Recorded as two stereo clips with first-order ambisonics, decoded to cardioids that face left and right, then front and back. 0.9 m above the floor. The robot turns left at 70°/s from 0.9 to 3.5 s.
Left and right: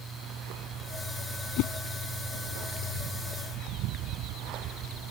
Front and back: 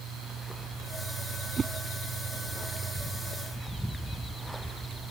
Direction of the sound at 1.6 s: 110° left.